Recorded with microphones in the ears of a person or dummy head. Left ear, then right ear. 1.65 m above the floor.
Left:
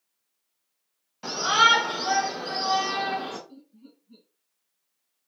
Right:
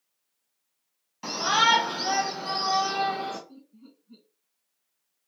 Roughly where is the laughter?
Centre.